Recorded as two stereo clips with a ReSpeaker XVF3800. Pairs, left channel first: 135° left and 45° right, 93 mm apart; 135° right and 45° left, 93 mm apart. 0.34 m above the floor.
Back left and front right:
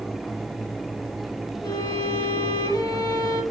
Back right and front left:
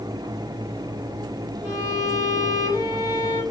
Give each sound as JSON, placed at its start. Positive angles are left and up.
{"t": 1.6, "sound": "a violin", "azimuth_deg": 175, "distance_m": 3.0}